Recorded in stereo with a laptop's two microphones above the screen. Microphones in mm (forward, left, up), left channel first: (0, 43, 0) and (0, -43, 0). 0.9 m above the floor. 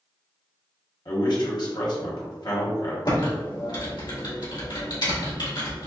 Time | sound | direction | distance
1.1 | a man speaking | 55° left (ahead or behind) | 1.4 m
3.0 | typing on a keyboard | 60° left (ahead or behind) | 1.8 m